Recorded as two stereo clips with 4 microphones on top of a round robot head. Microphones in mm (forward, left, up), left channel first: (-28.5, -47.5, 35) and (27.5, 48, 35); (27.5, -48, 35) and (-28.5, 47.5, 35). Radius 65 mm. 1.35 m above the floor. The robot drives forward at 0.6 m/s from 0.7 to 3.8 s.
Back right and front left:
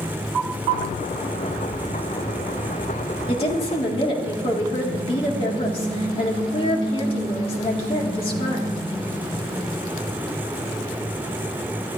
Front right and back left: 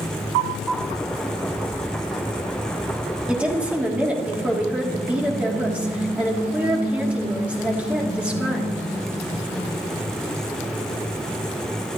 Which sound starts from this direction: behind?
A woman speaking, at 3.3 s.